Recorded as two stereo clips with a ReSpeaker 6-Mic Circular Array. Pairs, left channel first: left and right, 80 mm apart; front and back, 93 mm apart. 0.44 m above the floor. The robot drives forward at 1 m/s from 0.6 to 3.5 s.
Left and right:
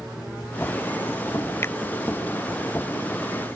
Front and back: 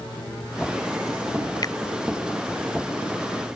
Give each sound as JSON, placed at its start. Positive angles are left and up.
{"t": 1.6, "sound": "a finger snap", "azimuth_deg": 35}